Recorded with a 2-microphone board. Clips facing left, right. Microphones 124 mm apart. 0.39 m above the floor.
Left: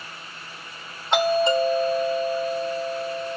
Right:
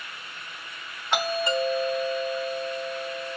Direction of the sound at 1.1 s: 25° left (ahead or behind).